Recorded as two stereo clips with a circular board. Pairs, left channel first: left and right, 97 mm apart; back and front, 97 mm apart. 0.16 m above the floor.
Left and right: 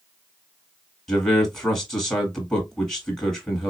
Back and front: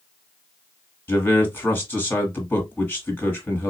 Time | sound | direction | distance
1.1 | a man speaking | 175° left | 1.5 m